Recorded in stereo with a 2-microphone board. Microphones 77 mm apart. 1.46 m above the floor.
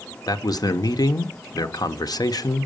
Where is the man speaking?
55° left (ahead or behind), 0.8 m.